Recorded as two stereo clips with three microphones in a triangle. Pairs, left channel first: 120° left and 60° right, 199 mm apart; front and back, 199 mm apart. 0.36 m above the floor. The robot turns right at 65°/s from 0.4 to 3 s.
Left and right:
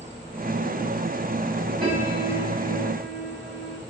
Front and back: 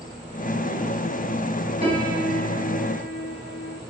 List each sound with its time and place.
1.8 s a piano: 120° right, 5.5 m; by 3.8 s 45° right, 5.5 m